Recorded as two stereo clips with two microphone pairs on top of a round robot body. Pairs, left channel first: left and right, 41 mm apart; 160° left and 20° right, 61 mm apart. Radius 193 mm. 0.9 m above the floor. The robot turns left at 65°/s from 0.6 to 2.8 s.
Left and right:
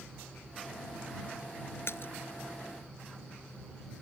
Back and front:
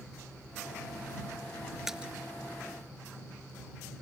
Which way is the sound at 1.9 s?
65° left.